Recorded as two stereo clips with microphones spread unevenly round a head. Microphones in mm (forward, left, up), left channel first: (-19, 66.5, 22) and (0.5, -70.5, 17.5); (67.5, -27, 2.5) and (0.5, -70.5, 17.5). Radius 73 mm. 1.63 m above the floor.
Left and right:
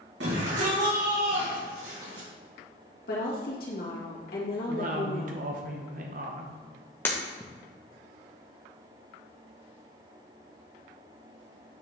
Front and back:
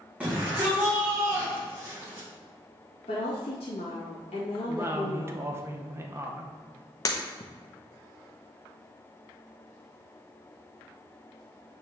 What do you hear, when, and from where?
0.2 s a shout: 75° right, 2.0 m; by 2.3 s 95° right, 3.5 m
3.1 s a woman speaking: 65° left, 2 m
4.7 s a woman speaking: 105° right, 0.9 m
7.0 s breaking glass: 35° left, 0.8 m